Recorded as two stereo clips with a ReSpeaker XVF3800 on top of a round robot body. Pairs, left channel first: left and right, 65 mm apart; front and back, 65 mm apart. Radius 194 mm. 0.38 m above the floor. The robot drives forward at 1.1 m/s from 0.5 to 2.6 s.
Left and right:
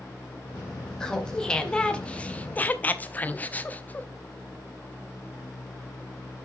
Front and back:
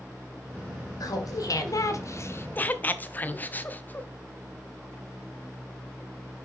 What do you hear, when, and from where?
1.0 s laughter: 10° left, 2.5 m; by 4.1 s 40° left, 1.0 m